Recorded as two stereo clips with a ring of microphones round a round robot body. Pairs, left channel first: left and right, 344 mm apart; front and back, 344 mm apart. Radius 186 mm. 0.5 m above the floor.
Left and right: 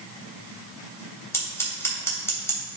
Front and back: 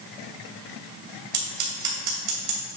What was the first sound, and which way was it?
Scissors, 170° left.